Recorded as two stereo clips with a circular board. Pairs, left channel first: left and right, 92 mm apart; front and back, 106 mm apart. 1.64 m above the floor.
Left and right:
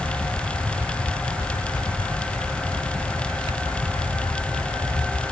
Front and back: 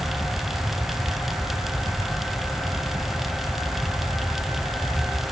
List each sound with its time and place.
Only background noise.